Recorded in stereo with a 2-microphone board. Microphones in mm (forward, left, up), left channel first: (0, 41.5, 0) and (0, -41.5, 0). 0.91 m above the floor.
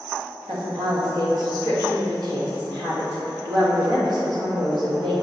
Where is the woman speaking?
55° right (ahead or behind), 1.0 m.